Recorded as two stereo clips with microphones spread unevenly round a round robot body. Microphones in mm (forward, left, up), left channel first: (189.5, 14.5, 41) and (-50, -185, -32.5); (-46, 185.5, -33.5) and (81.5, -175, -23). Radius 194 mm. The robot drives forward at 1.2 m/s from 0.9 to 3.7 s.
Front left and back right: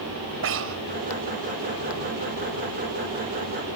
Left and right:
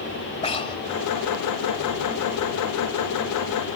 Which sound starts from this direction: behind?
Breathing, at 0.4 s.